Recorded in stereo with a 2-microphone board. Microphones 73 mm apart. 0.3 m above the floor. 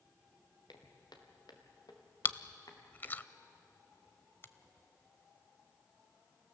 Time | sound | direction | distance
0.7 | footsteps | 75° left (ahead or behind) | 3 m
2.2 | chewing | 30° left (ahead or behind) | 0.5 m
4.4 | a finger snap | 35° left (ahead or behind) | 0.9 m